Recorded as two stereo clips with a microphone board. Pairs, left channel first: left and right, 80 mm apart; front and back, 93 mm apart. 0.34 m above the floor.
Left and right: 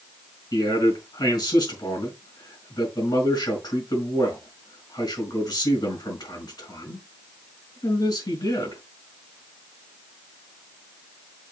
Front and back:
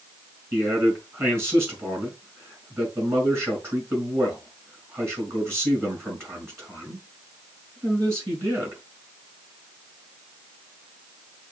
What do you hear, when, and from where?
0.5 s a man speaking: 120° left, 4.5 m